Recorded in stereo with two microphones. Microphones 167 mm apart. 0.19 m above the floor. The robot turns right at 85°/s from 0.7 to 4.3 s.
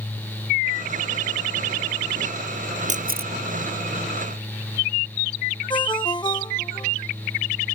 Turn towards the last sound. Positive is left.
turn(degrees=30)  # may be behind; listen again after turning